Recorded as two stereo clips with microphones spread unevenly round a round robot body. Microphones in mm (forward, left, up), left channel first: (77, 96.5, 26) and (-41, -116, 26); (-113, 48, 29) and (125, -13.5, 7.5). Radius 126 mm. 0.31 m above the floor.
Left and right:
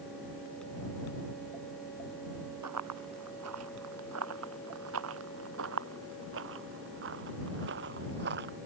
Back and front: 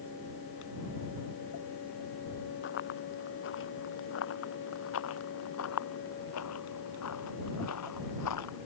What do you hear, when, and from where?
2.6 s running footsteps: 145° right; by 8.6 s 170° right